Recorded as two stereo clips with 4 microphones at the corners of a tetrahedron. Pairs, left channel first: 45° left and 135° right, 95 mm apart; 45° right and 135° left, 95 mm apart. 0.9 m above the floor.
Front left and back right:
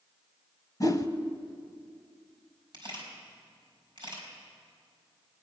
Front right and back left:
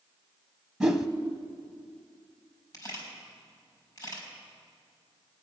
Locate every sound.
0.8 s a whoosh: 55° left, 0.8 m
2.7 s a camera shutter: 95° right, 4 m